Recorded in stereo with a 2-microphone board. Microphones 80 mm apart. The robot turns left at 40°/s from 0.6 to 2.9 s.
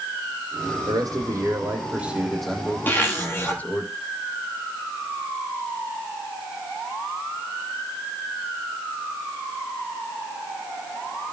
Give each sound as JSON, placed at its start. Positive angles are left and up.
{"t": 0.9, "sound": "a man speaking", "azimuth_deg": -120, "distance_m": 5.5}
{"t": 2.9, "sound": "a zipper", "side_deg": 25, "distance_m": 8.5}